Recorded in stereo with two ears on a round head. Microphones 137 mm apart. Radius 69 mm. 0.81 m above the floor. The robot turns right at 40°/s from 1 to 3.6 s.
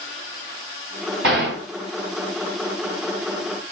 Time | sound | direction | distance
1.2 | a gunshot | 80° right | 2.5 m